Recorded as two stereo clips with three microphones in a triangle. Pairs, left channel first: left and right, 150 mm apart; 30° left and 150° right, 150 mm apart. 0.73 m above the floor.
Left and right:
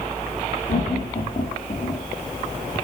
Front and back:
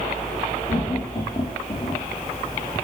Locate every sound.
0.7 s laughter: 70° left, 2.5 m; by 2.0 s 75° left, 1.6 m